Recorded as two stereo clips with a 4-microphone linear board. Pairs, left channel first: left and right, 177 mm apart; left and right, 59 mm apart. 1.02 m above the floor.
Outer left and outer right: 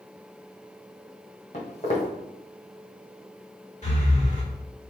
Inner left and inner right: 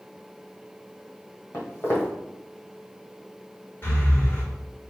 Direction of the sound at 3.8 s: 40° left (ahead or behind).